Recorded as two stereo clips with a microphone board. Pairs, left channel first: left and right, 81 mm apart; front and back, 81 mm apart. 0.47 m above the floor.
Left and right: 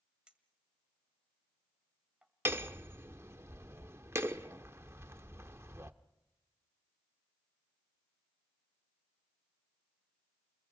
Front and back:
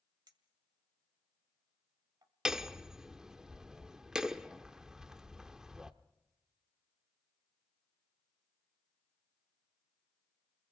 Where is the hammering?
105° right, 0.8 m.